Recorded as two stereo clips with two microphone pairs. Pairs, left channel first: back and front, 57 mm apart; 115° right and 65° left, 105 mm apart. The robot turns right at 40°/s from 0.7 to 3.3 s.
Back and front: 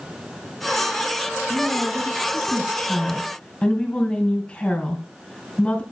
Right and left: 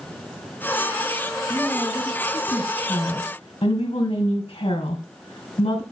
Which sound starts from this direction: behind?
A woman speaking, at 1.5 s.